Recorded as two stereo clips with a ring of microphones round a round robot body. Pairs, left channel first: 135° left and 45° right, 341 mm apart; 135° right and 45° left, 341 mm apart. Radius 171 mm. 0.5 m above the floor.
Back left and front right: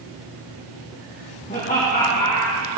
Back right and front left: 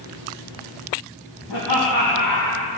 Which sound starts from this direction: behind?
Laughter, at 1.5 s.